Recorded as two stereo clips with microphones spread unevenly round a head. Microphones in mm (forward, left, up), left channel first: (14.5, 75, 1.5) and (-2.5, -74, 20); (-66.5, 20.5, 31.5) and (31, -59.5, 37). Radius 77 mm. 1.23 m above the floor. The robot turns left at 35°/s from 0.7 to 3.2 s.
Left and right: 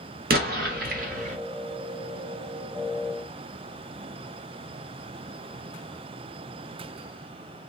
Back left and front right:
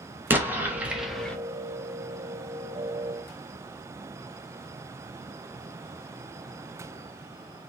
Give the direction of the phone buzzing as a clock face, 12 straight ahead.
No phone buzzing in this recording.